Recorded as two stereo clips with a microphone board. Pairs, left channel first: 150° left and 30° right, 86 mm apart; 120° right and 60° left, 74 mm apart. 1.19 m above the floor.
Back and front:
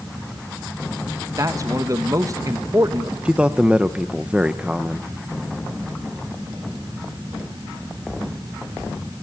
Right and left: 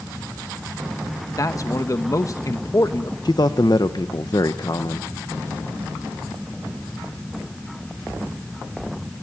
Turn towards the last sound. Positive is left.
turn(degrees=-105)